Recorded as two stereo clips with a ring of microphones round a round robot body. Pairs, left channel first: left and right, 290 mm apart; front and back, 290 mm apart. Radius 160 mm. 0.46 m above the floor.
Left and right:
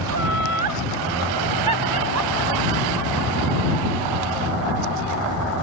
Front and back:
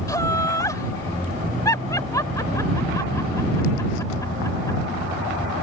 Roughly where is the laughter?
Right.